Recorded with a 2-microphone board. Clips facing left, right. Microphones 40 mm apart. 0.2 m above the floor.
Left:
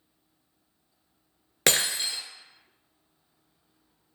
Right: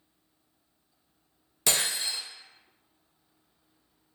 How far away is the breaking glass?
About 0.7 m.